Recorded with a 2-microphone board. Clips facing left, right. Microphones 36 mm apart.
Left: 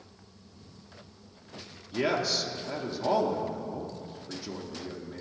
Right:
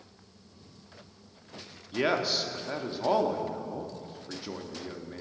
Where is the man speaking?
25° right (ahead or behind), 0.6 m.